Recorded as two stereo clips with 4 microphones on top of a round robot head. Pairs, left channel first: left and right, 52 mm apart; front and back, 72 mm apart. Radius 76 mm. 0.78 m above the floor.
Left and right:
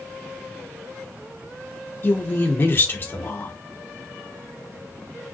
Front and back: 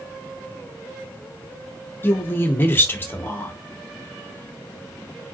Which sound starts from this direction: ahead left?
A woman speaking, at 2.0 s.